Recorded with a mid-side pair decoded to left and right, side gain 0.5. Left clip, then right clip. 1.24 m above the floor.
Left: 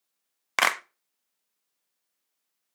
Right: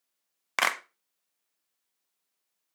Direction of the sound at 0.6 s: 15° left.